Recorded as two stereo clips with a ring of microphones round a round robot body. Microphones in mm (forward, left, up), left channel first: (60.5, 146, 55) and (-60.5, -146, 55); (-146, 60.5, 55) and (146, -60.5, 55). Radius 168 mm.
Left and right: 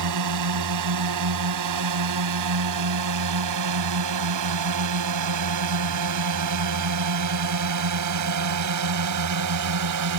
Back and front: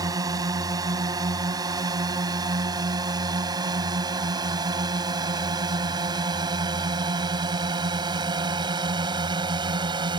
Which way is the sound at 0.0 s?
100° right.